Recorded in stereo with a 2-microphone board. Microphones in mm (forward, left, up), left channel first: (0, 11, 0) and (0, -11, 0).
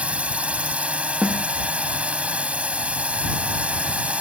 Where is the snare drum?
30° right (ahead or behind).